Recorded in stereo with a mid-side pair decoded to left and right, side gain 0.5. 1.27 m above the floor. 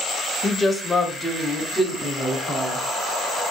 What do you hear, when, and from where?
0.4 s a woman speaking: 30° left, 0.9 m; by 2.8 s 5° left, 3.5 m